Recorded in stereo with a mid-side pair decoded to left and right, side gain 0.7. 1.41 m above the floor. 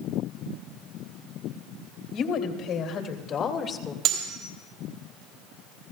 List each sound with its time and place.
2.1 s a woman speaking: 55° left, 3 m; by 4.0 s 30° left, 1.8 m
4.0 s cutlery clinking: 60° right, 3.5 m